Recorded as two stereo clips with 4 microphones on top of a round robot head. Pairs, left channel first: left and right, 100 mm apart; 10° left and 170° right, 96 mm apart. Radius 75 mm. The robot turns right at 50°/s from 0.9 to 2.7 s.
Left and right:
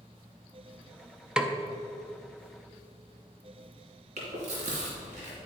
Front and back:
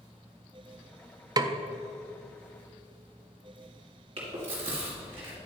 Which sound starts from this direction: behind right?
Chewing, at 4.2 s.